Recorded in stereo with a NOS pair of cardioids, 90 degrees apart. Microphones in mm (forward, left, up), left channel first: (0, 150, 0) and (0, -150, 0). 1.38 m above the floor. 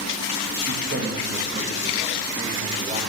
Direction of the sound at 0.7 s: 35° right.